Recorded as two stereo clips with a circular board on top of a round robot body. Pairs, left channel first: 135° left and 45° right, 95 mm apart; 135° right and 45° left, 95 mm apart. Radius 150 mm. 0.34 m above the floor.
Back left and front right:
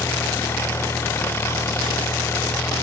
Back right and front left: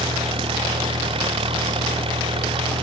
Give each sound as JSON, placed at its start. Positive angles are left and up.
{"t": 0.0, "sound": "an engine running", "azimuth_deg": 70}